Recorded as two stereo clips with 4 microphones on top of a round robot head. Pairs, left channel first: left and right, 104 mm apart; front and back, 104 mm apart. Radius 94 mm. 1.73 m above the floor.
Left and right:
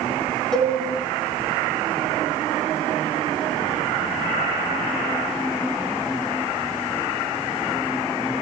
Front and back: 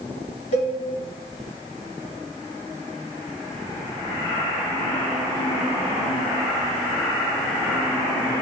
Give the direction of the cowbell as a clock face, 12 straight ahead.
12 o'clock.